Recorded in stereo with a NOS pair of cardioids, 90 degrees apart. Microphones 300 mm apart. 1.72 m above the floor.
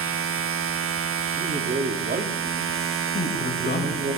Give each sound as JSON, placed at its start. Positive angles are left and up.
{"t": 0.0, "sound": "a machine running", "azimuth_deg": -50, "distance_m": 1.6}
{"t": 1.4, "sound": "a man speaking", "azimuth_deg": -30, "distance_m": 4.0}
{"t": 3.1, "sound": "a man speaking", "azimuth_deg": 35, "distance_m": 7.5}